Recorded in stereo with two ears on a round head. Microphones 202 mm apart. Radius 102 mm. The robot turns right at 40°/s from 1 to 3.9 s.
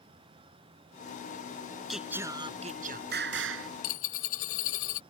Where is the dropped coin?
70° left (ahead or behind); by 5.0 s 65° left (ahead or behind).